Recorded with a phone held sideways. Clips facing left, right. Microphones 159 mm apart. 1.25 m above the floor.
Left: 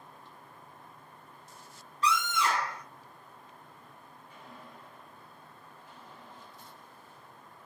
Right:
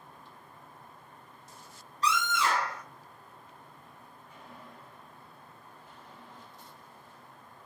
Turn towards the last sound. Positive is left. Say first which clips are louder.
# even
turn(degrees=-35)  # may be behind; listen again after turning